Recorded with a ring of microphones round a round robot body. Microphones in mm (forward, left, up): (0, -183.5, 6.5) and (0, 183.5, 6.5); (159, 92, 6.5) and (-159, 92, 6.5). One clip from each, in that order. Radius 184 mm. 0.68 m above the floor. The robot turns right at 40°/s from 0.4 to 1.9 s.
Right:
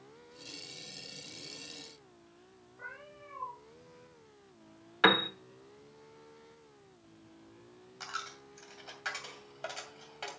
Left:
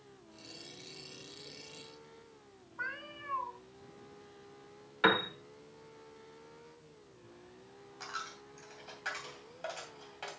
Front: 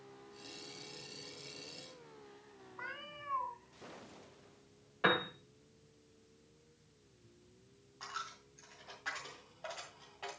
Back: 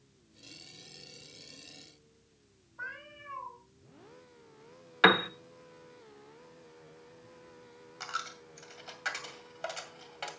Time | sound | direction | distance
2.8 | a cat meowing | 65° left | 3 m
5.0 | a piano | 160° right | 0.8 m
8.0 | a dropped coin | 160° right | 2 m